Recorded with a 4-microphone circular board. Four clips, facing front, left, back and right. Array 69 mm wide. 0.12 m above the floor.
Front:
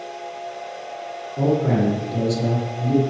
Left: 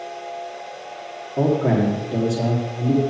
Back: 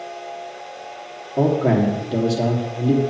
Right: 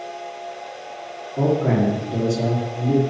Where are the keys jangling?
I don't hear keys jangling.